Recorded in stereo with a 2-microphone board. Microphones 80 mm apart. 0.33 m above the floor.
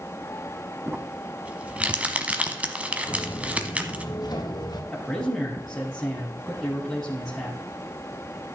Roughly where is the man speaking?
Centre.